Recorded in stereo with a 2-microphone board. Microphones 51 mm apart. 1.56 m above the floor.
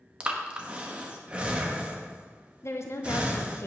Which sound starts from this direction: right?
Breathing, at 0.2 s.